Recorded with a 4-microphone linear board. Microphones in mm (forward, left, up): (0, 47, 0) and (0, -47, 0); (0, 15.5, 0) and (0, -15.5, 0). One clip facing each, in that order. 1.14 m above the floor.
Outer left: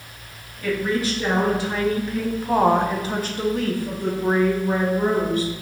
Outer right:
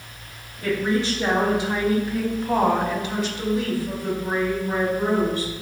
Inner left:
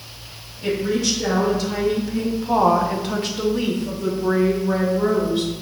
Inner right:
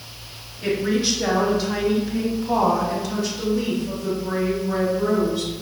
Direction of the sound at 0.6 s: 30° right (ahead or behind).